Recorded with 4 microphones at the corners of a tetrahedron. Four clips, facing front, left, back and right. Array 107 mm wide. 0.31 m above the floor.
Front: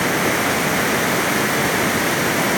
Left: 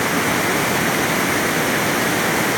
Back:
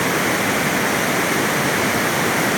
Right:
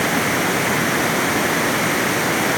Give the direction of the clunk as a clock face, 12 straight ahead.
I don't hear a clunk.